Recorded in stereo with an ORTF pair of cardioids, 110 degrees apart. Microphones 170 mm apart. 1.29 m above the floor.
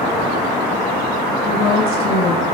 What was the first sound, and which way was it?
A woman speaking, 60° left.